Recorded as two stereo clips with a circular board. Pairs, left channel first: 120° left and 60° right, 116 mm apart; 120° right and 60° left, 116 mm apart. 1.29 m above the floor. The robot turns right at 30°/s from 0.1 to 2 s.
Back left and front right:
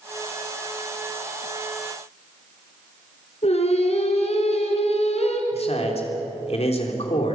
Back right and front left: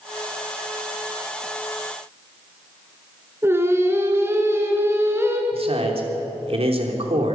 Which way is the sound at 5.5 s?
90° left.